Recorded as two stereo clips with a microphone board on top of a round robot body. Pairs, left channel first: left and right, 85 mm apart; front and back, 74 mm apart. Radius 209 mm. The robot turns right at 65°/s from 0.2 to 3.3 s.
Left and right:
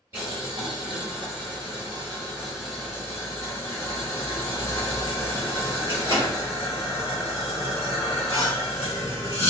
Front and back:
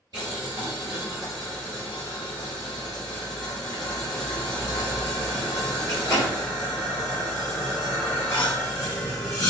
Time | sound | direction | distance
0.1 | boiling | 150° right | 0.7 m